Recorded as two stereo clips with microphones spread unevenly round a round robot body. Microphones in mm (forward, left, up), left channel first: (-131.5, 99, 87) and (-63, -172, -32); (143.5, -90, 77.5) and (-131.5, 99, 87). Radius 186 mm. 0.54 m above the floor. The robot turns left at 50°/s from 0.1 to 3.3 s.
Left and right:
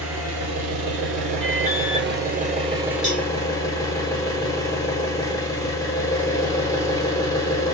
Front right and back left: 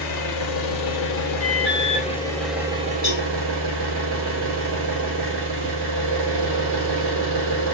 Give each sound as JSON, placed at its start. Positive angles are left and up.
{"t": 0.0, "sound": "an engine running", "azimuth_deg": -5, "distance_m": 1.1}
{"t": 1.4, "sound": "an alarm", "azimuth_deg": 20, "distance_m": 1.7}
{"t": 3.0, "sound": "a cowbell", "azimuth_deg": -90, "distance_m": 1.7}